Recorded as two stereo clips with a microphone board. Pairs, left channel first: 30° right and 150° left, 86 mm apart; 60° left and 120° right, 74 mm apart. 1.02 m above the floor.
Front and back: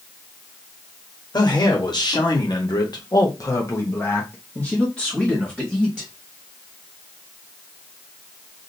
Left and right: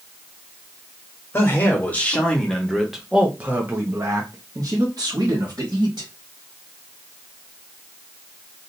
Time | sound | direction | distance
1.3 | a man speaking | straight ahead | 1.4 m